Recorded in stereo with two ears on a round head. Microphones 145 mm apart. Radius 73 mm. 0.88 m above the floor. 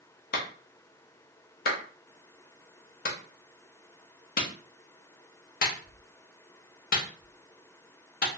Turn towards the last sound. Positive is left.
turn(degrees=60)  # may be behind; listen again after turning